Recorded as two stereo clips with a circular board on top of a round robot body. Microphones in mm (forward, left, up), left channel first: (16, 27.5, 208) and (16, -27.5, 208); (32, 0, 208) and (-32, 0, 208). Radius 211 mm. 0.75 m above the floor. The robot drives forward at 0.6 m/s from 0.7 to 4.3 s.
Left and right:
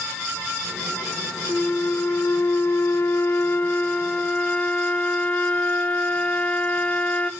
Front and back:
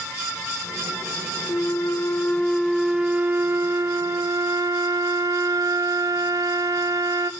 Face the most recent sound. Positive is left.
turn(degrees=155)